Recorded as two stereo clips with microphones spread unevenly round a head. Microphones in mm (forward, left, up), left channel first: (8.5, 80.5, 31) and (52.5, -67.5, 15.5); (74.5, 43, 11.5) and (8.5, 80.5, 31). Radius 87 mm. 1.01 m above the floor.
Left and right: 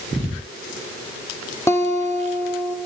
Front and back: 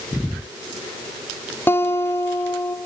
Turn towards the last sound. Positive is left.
turn(degrees=35)